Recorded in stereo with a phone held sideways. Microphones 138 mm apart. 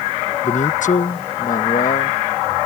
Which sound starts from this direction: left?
A man speaking, at 0.4 s.